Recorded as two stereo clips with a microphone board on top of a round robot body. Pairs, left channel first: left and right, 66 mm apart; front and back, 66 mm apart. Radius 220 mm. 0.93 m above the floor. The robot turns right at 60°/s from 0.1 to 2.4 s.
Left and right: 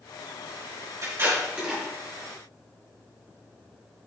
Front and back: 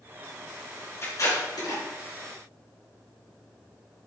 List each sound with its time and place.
1.0 s tape being pulled: 50° right, 4.5 m; by 1.8 s straight ahead, 4.5 m